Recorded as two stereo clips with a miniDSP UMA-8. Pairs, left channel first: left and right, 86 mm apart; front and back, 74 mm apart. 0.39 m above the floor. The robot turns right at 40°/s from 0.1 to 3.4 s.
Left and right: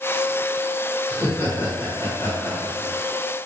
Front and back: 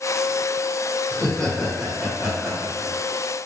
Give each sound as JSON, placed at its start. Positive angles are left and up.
{"t": 1.1, "sound": "laughter", "azimuth_deg": 60, "distance_m": 1.1}